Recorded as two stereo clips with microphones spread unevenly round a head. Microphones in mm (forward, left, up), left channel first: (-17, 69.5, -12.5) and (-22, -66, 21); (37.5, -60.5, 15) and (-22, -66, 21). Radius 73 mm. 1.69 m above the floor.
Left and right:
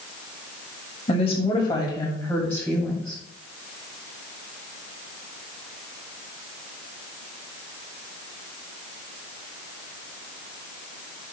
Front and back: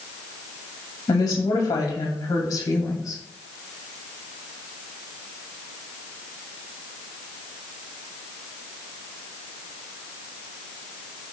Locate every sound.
1.1 s a woman speaking: 30° left, 2.5 m; by 3.2 s straight ahead, 3 m